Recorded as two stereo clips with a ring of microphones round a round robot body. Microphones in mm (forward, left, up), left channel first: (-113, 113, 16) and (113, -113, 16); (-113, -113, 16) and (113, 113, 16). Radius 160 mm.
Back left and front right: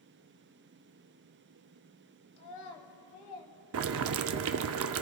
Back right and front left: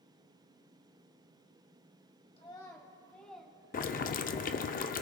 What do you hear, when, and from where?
2.4 s a child speaking: 150° left, 1.8 m; by 4.5 s 130° left, 3.5 m
3.7 s boiling: 75° right, 0.5 m